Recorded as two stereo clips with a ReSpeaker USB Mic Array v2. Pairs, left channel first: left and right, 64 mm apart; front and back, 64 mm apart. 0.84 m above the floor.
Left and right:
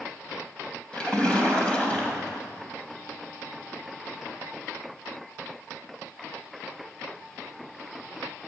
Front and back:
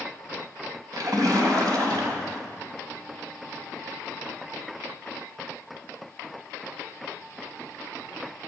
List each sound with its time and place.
0.9 s a splash: 165° left, 3 m